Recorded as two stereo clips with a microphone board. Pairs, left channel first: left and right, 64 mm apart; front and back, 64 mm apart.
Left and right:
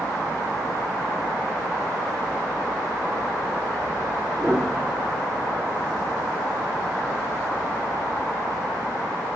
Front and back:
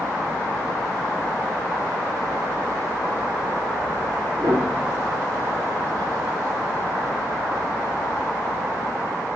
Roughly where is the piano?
Behind.